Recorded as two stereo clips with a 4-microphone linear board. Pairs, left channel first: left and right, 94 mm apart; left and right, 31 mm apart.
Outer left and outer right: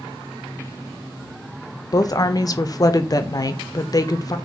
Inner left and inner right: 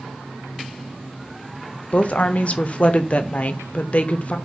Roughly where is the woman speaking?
Left.